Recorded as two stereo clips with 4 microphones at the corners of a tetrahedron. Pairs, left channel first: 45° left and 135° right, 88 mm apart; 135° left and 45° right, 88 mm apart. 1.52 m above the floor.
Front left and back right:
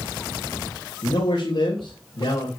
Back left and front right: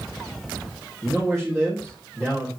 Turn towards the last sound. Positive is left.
turn(degrees=50)